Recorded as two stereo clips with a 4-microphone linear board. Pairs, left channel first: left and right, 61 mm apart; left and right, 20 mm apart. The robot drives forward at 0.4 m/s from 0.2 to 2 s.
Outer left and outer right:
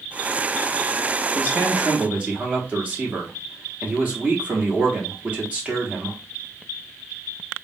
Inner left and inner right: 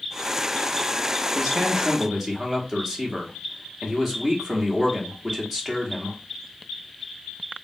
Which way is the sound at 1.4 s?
30° right (ahead or behind).